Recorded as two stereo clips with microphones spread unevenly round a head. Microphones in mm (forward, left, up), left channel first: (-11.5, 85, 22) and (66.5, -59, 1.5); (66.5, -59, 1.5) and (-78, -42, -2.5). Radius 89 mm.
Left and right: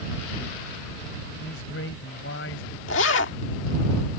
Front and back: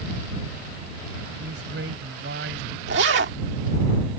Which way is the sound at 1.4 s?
145° left.